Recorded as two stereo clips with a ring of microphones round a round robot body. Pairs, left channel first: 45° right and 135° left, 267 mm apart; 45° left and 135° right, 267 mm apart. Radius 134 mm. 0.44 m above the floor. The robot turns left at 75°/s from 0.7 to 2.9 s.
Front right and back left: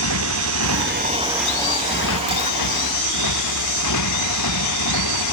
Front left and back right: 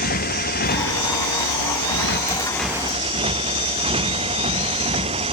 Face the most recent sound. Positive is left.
turn(degrees=-65)